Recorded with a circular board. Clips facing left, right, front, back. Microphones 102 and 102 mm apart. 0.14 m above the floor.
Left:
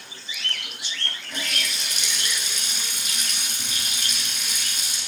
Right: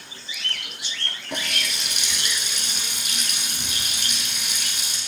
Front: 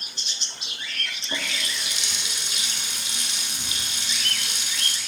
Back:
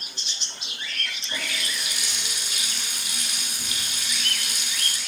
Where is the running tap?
65° right, 3.5 m.